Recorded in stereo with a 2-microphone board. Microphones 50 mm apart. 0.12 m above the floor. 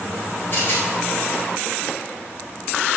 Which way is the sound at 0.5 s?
50° left (ahead or behind).